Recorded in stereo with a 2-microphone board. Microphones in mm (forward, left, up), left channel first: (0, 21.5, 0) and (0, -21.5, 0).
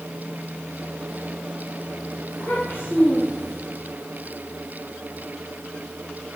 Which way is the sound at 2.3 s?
55° left (ahead or behind).